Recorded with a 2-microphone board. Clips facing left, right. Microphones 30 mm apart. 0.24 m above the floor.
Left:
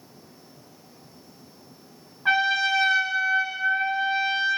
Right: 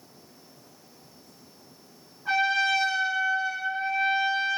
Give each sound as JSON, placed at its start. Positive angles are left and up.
{"t": 2.2, "sound": "a trumpet", "side_deg": 80, "distance_m": 5.0}